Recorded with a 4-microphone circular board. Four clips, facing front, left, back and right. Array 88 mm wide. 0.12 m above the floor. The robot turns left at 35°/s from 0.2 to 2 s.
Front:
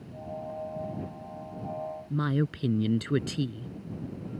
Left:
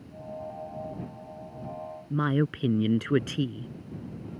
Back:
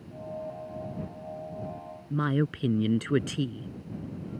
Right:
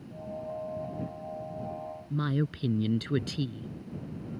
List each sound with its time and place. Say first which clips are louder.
2.1 s a woman speaking: left 5 dB, back 2 dB; 110° left